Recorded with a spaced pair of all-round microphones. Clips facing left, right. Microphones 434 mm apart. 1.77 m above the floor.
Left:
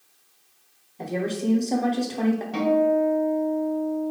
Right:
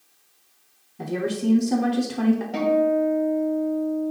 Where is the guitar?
15° left (ahead or behind), 2 m.